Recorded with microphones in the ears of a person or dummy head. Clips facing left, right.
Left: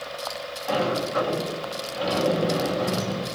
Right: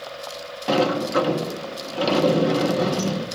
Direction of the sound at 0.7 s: 70° right (ahead or behind).